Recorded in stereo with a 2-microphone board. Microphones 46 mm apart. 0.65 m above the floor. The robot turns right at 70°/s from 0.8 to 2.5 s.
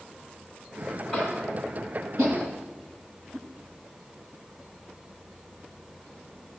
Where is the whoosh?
85° right, 3.5 m.